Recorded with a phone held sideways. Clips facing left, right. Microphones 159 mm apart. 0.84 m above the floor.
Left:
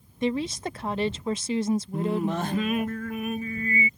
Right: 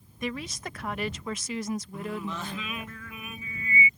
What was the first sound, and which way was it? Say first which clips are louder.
A woman speaking: left 8 dB; 30° left (ahead or behind).